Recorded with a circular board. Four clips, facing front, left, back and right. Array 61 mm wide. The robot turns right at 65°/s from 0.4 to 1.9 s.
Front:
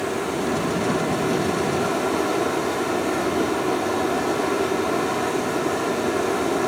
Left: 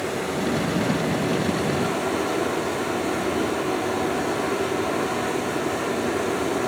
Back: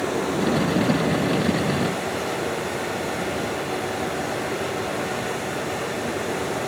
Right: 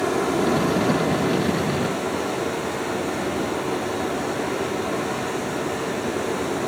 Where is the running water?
110° right, 4 m; by 6.7 s 15° right, 4 m.